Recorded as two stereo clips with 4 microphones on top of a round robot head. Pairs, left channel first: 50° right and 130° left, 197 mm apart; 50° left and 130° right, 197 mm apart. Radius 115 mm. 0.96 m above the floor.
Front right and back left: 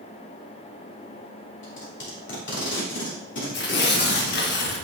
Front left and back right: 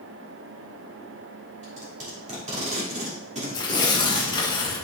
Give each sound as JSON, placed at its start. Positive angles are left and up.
{"t": 1.6, "sound": "tape being pulled", "azimuth_deg": -75, "distance_m": 3.0}
{"t": 3.5, "sound": "tearing paper", "azimuth_deg": -20, "distance_m": 1.2}